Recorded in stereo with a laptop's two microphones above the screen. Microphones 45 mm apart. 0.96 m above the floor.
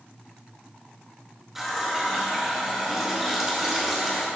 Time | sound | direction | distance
1.6 | a running tap | 10° right (ahead or behind) | 0.9 m